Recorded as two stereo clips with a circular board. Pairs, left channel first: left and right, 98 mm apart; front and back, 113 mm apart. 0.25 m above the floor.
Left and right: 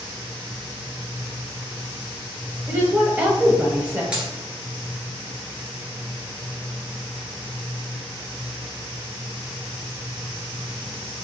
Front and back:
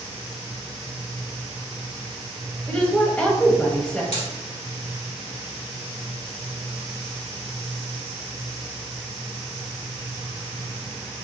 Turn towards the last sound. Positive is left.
turn(degrees=-10)